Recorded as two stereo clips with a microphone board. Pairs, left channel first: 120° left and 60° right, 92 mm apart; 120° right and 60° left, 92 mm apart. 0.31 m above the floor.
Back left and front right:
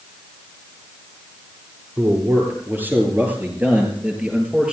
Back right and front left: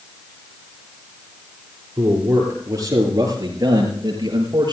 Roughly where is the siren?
I don't hear a siren.